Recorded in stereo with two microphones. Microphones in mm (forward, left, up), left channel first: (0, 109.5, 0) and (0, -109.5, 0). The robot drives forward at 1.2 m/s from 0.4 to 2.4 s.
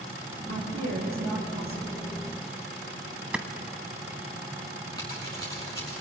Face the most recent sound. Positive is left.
turn(degrees=15)  # may be behind; listen again after turning